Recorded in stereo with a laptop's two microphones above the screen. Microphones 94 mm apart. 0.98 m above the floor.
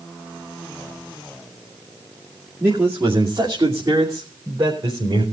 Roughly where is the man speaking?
Right.